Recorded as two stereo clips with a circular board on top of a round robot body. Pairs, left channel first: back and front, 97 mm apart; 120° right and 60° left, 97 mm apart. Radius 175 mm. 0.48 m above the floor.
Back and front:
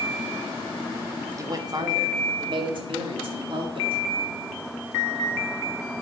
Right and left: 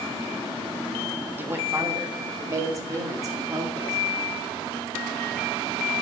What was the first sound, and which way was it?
A woman speaking, 10° left.